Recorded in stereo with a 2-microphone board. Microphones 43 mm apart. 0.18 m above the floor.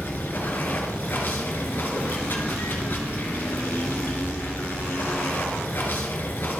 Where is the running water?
50° left (ahead or behind), 1.7 m.